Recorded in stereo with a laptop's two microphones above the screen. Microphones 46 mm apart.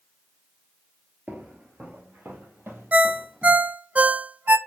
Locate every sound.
1.3 s footsteps: 35° right (ahead or behind), 1.1 m; by 3.7 s 65° right (ahead or behind), 2.5 m
2.9 s a ringtone: 30° right (ahead or behind), 0.5 m